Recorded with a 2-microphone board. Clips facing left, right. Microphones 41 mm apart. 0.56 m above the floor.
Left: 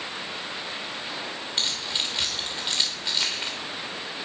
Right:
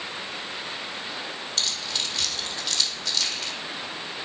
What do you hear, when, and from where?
1.6 s keys jangling: 25° left (ahead or behind), 1.2 m